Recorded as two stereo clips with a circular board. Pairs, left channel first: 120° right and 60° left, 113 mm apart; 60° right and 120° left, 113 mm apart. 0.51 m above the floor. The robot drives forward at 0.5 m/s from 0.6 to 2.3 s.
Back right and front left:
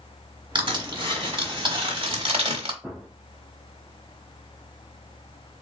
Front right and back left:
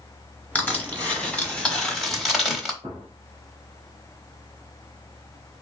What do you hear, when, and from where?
0.6 s crushing: 15° left, 1.8 m; by 2.7 s 30° left, 1.0 m
2.8 s a gunshot: 145° left, 1.7 m